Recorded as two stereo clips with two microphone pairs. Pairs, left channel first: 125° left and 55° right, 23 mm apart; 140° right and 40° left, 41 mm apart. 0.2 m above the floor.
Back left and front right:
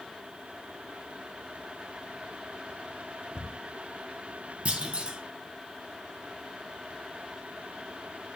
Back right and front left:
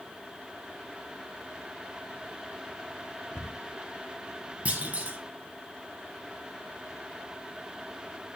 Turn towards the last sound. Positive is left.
turn(degrees=-15)